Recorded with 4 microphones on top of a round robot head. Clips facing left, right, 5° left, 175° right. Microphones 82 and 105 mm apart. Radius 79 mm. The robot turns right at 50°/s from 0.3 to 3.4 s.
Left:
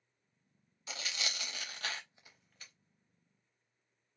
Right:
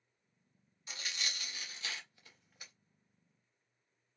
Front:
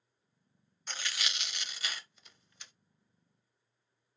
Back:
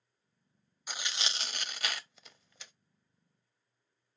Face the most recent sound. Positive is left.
turn(degrees=-130)